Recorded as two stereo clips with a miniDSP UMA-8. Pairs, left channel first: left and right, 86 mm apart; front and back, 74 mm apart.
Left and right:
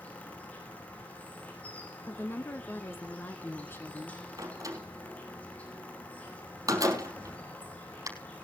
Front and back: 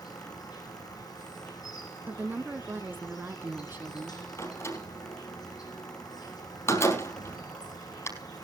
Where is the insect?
20° left, 6 m.